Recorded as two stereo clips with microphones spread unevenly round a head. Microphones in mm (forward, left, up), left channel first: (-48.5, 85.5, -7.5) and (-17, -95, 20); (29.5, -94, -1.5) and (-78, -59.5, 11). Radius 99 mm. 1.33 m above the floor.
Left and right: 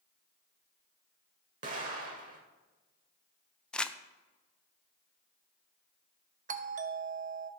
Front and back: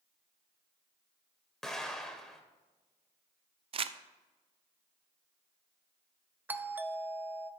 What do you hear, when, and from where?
1.6 s an explosion: 110° right, 1.7 m
3.7 s crumpling: 170° right, 0.5 m
6.5 s a doorbell: 120° right, 0.7 m